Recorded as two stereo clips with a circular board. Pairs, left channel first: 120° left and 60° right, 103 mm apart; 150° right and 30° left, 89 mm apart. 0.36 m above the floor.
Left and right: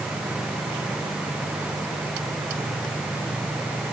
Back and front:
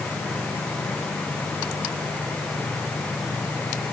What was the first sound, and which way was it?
Only background noise.